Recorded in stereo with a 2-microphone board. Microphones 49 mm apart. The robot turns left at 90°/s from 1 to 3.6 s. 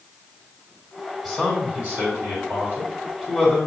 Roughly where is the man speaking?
Ahead.